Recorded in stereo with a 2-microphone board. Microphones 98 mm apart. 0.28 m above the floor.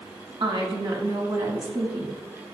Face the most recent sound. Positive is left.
turn(degrees=-60)  # may be behind; listen again after turning